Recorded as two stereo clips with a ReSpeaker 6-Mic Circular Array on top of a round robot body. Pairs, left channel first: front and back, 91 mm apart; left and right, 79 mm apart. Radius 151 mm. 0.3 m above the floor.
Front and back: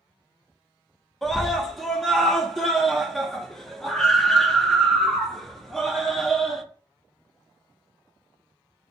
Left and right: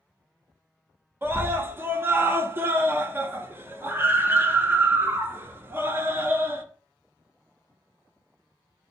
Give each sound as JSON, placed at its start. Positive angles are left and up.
{"t": 1.2, "sound": "a scream", "azimuth_deg": -85, "distance_m": 0.9}